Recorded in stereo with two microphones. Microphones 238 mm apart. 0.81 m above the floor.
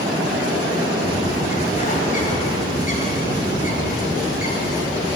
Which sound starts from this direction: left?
A bird, at 1.0 s.